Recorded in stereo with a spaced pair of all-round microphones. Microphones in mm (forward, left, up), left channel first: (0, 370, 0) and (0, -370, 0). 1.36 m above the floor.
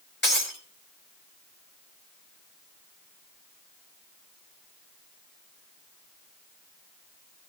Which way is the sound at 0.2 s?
15° left (ahead or behind).